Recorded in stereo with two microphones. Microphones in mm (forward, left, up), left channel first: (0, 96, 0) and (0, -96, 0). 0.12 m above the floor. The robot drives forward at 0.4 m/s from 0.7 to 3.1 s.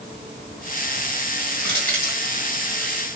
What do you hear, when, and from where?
1.6 s crushing: 10° left (ahead or behind), 4 m